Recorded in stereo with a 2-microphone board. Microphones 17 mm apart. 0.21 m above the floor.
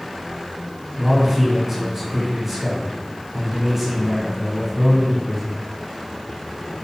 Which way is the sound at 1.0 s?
20° right (ahead or behind).